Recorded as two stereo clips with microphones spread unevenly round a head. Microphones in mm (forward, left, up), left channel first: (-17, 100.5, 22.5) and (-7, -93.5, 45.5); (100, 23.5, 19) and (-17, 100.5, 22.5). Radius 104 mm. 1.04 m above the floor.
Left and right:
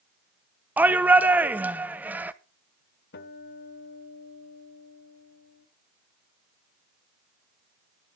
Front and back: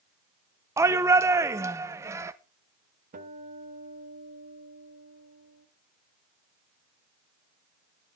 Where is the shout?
175° right, 0.6 m.